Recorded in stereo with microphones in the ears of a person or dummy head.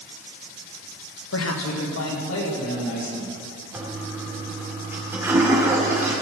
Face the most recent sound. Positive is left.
turn(degrees=-15)  # may be behind; listen again after turning